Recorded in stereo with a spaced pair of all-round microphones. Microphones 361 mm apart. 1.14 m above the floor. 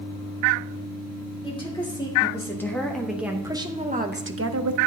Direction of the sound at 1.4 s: 15° left (ahead or behind).